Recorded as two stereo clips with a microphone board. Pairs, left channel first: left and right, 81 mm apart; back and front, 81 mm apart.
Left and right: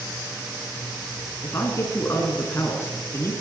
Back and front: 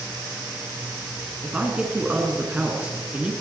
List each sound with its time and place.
1.4 s a woman speaking: 60° left, 1.6 m